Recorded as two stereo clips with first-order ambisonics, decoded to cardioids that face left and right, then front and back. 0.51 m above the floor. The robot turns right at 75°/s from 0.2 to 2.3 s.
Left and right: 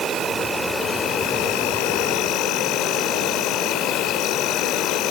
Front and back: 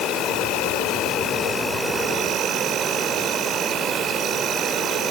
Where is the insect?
35° right, 1.7 m; by 5.1 s 125° left, 1.7 m.